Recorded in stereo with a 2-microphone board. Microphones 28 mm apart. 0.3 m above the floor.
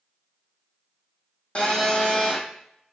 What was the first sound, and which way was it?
A phone buzzing, 40° left (ahead or behind).